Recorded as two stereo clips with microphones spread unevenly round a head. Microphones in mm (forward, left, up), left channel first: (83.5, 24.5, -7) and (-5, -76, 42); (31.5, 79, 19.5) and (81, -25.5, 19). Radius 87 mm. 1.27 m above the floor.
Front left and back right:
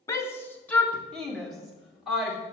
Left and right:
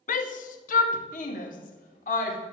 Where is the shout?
120° left, 1.3 m; by 2.4 s 140° left, 2.5 m.